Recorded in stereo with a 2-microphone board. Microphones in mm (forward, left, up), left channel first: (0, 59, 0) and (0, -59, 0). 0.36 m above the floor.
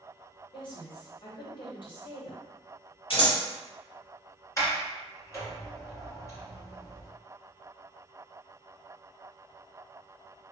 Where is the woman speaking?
45° left (ahead or behind), 1.8 m.